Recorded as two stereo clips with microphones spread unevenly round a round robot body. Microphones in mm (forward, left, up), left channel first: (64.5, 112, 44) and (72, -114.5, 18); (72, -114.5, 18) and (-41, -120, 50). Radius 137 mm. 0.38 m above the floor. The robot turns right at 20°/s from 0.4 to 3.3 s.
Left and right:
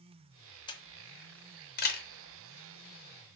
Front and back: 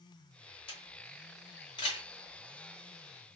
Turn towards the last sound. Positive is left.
turn(degrees=70)